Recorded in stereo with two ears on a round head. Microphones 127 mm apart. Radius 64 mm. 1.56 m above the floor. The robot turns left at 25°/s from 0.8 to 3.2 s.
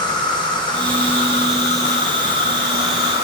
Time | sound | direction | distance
0.0 | an insect | 145° left | 4 m